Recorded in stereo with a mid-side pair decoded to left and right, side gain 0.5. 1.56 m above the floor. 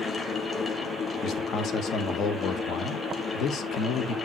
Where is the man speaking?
60° left, 1.6 m.